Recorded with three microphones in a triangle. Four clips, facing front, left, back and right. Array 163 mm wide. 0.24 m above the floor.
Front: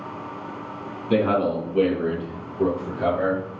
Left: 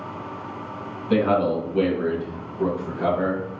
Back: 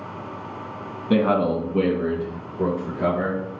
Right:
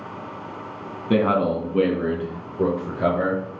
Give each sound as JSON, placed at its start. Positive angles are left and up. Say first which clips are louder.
{"t": 1.1, "sound": "a man speaking", "louder": "even, back 1 dB", "azimuth_deg": -125, "distance_m": 2.0}